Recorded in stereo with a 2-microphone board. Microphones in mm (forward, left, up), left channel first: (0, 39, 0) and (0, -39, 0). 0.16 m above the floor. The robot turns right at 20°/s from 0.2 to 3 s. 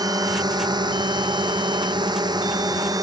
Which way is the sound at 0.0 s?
60° right (ahead or behind).